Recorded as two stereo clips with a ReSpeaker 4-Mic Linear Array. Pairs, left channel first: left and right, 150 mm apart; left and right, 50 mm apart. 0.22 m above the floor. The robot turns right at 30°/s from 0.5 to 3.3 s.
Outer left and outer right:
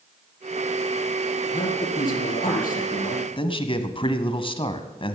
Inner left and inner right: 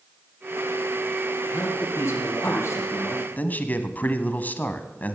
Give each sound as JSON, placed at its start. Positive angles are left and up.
{"t": 1.5, "sound": "a man speaking", "azimuth_deg": 60, "distance_m": 4.0}
{"t": 3.4, "sound": "a man speaking", "side_deg": 35, "distance_m": 1.2}